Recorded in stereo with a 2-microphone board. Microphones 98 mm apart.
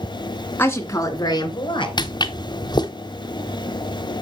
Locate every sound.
0.6 s a woman speaking: 20° left (ahead or behind), 1.7 m; by 1.9 s 50° left (ahead or behind), 2.5 m
2.0 s footsteps: 45° left (ahead or behind), 1.0 m